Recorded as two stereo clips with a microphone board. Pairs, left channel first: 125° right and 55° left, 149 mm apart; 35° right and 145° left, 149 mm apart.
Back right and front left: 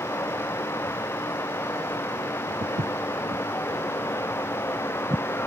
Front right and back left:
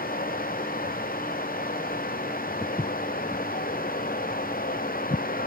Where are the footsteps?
40° left; by 5.2 s 15° right.